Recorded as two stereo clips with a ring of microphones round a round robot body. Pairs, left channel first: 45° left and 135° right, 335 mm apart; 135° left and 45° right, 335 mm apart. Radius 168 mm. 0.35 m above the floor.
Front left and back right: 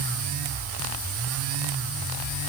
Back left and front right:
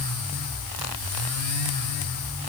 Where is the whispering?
No whispering in this recording.